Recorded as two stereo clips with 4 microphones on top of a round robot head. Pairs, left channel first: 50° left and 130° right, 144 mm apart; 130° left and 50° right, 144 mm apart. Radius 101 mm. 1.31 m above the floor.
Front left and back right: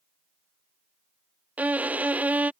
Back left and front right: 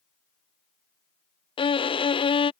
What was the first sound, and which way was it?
A violin, 155° left.